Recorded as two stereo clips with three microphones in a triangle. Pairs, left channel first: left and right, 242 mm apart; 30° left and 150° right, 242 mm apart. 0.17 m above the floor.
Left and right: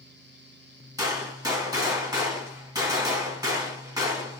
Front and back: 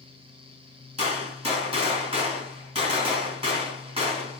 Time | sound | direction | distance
1.0 | a gunshot | 140° right | 1.5 m